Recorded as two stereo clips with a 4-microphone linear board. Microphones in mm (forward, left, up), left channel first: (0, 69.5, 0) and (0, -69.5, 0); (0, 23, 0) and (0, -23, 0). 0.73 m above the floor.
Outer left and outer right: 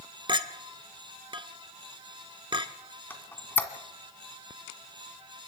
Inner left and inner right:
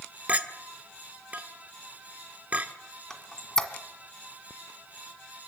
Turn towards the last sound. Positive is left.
turn(degrees=15)  # may be behind; listen again after turning